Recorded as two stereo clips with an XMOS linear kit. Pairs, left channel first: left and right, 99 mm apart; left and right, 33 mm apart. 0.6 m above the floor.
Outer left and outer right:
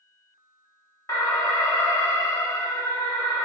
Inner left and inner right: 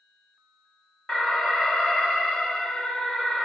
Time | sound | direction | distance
1.1 | an alarm | 35° left (ahead or behind) | 1.4 m